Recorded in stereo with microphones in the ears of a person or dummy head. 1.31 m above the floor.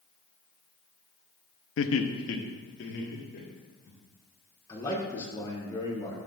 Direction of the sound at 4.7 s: 25° left (ahead or behind).